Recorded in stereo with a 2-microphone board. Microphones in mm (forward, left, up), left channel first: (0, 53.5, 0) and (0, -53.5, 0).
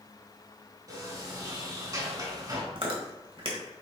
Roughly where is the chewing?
Right.